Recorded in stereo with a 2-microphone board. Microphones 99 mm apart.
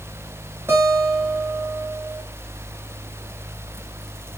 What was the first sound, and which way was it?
A guitar, 25° right (ahead or behind).